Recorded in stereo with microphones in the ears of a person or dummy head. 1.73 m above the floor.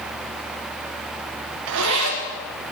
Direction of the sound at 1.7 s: 75° right (ahead or behind).